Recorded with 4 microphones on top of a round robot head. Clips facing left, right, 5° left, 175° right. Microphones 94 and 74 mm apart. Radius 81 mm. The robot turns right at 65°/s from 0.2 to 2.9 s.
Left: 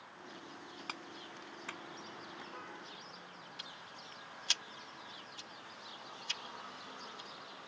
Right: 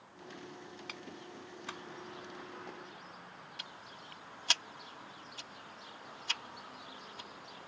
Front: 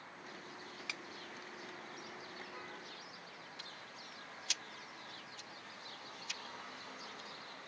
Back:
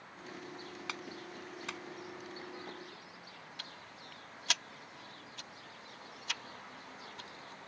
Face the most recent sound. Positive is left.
turn(degrees=-135)